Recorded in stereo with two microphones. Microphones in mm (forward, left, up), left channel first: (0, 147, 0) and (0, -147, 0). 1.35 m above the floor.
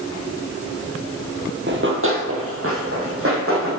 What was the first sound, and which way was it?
Running footsteps, 40° right (ahead or behind).